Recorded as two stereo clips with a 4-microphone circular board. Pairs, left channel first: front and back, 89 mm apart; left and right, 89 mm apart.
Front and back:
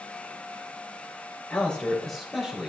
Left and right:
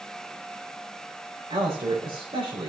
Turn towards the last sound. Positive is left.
turn(degrees=-95)